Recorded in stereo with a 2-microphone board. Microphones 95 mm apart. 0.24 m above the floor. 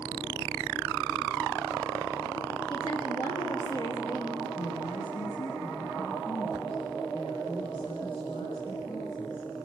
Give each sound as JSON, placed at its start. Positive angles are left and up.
{"t": 2.7, "sound": "a woman speaking", "side_deg": 60, "distance_m": 6.0}
{"t": 4.6, "sound": "a woman speaking", "side_deg": 65, "distance_m": 3.5}